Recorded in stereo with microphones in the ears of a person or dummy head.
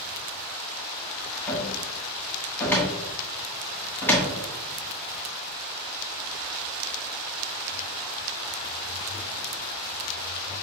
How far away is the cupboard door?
About 1.1 m.